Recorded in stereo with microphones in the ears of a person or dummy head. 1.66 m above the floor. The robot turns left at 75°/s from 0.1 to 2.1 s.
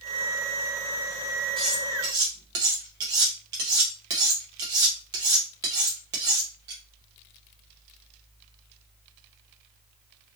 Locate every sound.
1.6 s cutlery clinking: 5° left (ahead or behind), 0.8 m; by 6.8 s 20° right (ahead or behind), 0.8 m